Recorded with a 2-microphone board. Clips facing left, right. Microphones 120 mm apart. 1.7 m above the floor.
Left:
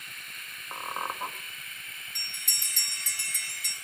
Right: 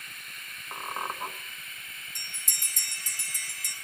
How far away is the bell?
About 1.8 m.